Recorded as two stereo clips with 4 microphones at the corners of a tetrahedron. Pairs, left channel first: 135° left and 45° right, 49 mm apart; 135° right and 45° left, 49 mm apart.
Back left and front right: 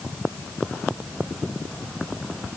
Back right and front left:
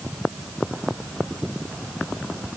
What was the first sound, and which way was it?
Only background noise.